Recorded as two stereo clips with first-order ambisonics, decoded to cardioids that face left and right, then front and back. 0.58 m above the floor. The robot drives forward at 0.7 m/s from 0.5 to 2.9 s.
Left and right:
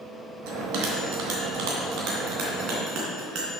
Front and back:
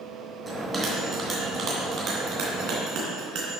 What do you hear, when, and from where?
0.5 s a bell: 95° right, 2 m; by 3.5 s 135° right, 3 m